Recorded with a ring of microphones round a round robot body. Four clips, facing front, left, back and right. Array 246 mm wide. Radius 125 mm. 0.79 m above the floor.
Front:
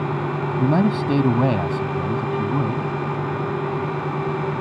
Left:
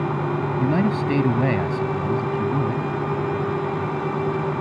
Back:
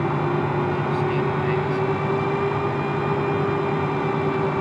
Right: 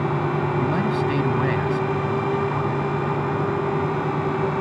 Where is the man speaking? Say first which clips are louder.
Left 1 dB, front 3 dB; 25° left; by 2.9 s 40° left.